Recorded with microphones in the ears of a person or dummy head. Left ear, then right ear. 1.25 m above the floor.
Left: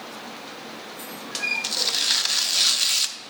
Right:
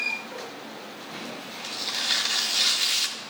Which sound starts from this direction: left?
Tearing paper, at 1.6 s.